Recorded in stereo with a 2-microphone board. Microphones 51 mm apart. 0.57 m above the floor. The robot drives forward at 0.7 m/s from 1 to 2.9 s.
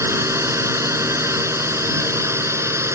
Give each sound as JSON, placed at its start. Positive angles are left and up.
{"t": 0.0, "sound": "a drone", "side_deg": -65}